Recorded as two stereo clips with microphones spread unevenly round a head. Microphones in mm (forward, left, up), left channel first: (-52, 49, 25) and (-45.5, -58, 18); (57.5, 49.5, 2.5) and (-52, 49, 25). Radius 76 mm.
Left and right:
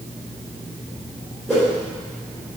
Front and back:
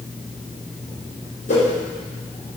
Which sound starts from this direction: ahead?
A whoosh, at 1.5 s.